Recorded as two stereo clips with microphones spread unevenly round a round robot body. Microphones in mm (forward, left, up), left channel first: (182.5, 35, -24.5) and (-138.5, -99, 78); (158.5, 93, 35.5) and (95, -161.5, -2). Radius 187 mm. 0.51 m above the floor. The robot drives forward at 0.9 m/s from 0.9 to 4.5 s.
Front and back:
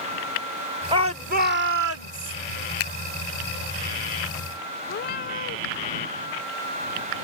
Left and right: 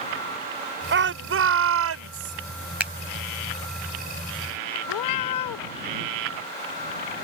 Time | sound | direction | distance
0.9 | a shout | 70° right | ?
2.8 | a finger snap | 20° right | ?
4.9 | a cat meowing | 90° left | ?